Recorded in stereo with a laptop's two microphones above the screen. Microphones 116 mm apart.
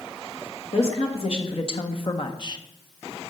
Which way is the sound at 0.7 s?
55° left (ahead or behind).